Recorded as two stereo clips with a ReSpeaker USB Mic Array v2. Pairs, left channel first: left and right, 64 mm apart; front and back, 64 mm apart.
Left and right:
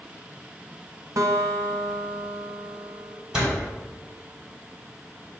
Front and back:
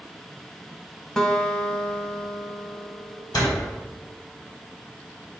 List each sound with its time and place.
1.2 s a guitar: 75° right, 1.0 m
3.3 s a door slam: 15° right, 3 m